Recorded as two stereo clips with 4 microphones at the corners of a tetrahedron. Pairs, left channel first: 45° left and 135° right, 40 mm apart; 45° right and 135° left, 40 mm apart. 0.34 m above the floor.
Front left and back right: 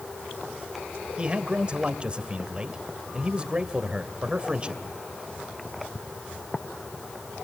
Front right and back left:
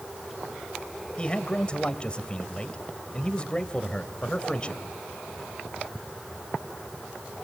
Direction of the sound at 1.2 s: 90° right.